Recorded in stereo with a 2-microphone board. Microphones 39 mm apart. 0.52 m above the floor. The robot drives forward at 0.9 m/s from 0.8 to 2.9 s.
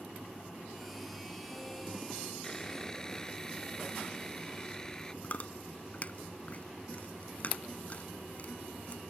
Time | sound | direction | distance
2.4 | sawing | 15° left (ahead or behind) | ?
5.2 | chewing | 40° left (ahead or behind) | ?